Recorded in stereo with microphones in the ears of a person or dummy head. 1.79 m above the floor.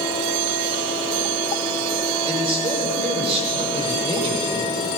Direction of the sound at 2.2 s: 35° right (ahead or behind).